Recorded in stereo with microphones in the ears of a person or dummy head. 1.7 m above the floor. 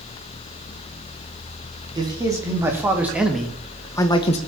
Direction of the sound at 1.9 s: 20° right (ahead or behind).